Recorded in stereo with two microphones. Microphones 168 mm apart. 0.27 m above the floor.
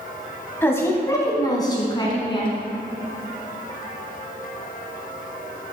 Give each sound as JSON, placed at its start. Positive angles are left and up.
{"t": 0.6, "sound": "a woman speaking", "side_deg": 15, "distance_m": 1.7}